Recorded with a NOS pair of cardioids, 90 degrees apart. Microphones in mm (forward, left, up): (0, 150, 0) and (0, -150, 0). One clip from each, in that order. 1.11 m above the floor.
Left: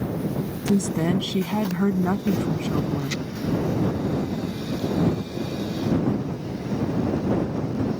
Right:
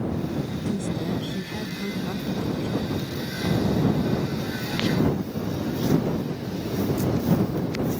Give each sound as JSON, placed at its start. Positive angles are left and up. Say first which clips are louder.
{"t": 0.7, "sound": "a woman speaking", "louder": "left 8 dB", "azimuth_deg": 65}